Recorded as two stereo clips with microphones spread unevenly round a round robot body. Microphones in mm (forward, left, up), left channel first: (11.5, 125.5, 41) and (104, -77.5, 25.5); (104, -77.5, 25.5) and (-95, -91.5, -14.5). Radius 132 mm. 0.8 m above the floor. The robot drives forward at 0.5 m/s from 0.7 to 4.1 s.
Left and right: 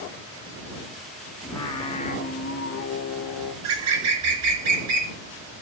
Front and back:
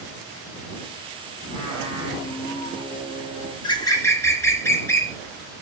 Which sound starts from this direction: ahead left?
Singing, at 1.4 s.